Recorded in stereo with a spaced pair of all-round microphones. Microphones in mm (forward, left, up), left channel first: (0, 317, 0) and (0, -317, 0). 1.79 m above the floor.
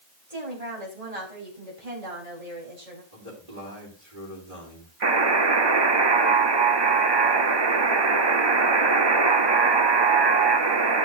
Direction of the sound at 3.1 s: 80° right.